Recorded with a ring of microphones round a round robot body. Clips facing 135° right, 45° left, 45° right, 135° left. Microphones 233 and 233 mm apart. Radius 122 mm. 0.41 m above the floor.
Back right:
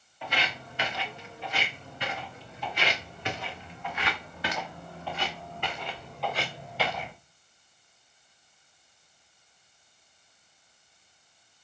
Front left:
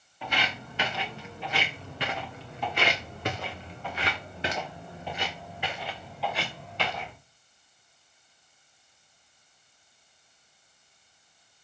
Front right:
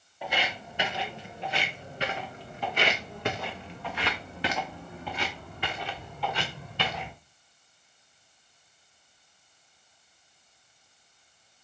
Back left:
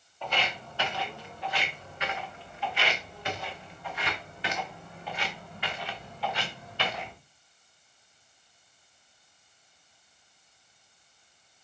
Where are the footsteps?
35° left, 3 m; by 7.1 s 50° right, 3 m.